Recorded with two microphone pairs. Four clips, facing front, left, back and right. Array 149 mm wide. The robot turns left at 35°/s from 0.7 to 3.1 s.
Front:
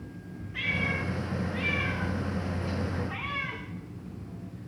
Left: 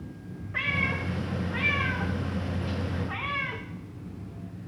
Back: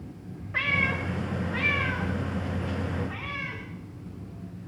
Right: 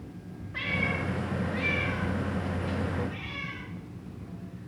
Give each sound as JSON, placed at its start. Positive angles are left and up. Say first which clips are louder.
{"t": 0.5, "sound": "a cat meowing", "louder": "left 1 dB, back 3 dB", "azimuth_deg": 170, "distance_m": 5.5}